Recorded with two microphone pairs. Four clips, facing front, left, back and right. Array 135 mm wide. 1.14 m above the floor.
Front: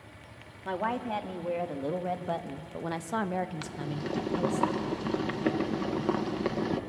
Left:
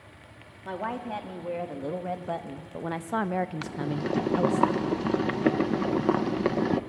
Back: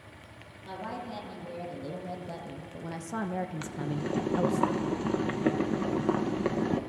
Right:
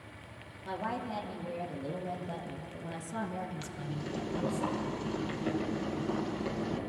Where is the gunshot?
No gunshot in this recording.